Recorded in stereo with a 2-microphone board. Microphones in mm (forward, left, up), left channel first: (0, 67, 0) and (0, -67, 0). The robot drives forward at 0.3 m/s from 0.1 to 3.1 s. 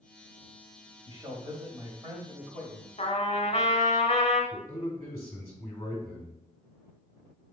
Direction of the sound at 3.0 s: 50° left (ahead or behind).